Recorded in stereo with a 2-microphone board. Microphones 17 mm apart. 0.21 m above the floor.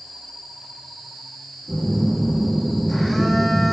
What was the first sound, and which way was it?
A phone buzzing, 15° left (ahead or behind).